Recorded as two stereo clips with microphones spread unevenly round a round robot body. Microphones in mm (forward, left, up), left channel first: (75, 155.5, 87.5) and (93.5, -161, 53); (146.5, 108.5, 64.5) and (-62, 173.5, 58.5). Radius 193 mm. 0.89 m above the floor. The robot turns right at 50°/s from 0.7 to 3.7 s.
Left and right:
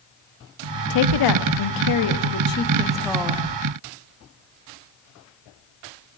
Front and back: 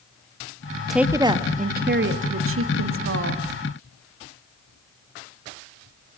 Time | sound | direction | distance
0.9 | a woman speaking | 75° left | 1.6 m